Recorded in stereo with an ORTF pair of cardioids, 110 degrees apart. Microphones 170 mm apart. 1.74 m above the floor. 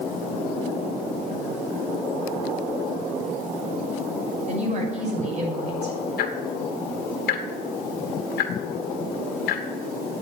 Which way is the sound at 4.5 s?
40° right.